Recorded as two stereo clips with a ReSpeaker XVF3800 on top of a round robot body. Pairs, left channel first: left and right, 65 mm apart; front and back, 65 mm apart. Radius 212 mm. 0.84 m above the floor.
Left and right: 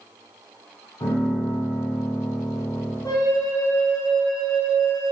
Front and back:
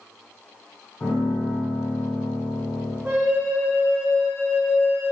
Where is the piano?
60° left, 1.4 m.